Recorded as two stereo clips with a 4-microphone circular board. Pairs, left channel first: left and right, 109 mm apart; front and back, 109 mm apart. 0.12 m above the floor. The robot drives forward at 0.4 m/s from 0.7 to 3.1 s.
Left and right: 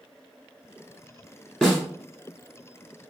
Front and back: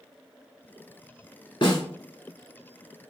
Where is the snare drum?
5° left, 2 m.